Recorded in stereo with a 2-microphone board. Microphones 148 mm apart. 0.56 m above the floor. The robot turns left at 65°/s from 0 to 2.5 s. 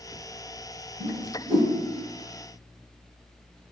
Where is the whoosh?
70° right (ahead or behind), 1.0 m; by 1.7 s 20° right (ahead or behind), 1.0 m.